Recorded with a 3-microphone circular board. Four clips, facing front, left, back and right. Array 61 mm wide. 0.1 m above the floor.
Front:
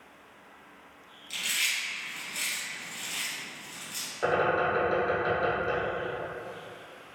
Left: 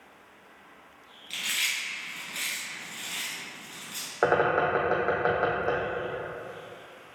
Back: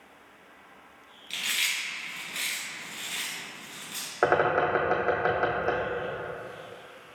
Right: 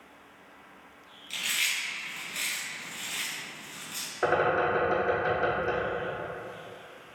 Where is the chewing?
150° left, 1.8 m.